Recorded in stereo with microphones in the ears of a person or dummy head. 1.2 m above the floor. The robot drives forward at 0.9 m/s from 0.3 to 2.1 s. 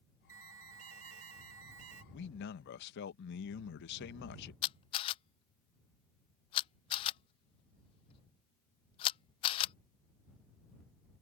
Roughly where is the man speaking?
Left.